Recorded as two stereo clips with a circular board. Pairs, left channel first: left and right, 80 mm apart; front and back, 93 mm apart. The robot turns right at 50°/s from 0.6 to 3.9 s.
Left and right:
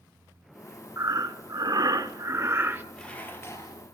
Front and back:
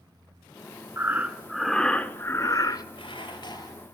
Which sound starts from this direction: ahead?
Dishes clattering, at 2.9 s.